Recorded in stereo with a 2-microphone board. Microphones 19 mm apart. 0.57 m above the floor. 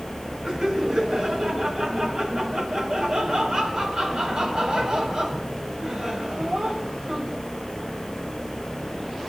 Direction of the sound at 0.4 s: 45° right (ahead or behind).